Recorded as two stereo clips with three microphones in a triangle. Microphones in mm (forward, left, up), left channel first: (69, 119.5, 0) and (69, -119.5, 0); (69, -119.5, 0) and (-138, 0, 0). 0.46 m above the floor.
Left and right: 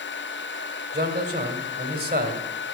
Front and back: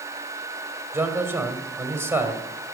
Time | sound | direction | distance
0.9 | a man speaking | 130° right | 2 m